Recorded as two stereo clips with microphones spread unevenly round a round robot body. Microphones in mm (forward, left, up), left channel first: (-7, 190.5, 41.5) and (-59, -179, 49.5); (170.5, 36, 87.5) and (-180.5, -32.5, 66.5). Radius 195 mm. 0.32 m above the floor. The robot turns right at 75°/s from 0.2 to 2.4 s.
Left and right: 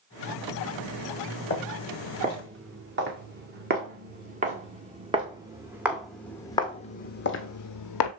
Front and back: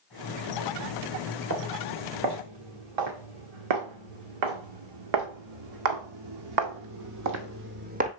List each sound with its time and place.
1.5 s footsteps: 135° left, 3.5 m; by 8.1 s 120° left, 1.0 m